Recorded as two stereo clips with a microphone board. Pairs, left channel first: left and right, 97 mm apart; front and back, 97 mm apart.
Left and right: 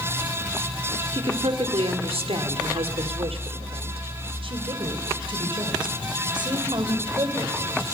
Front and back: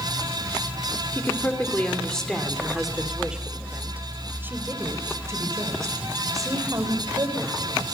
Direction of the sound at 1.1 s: 65° right.